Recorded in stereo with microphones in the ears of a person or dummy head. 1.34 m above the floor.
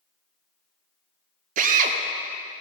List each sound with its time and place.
1.6 s a drill: 40° right (ahead or behind), 0.8 m